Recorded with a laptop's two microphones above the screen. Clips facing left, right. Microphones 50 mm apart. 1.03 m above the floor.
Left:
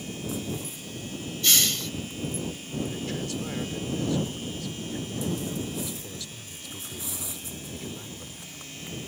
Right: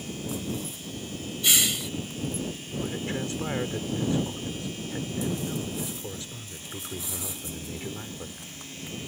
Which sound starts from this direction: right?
A man speaking, at 2.8 s.